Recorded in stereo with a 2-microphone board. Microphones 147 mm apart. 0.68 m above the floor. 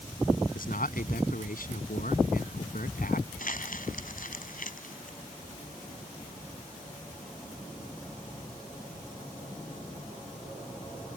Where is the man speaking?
75° left (ahead or behind).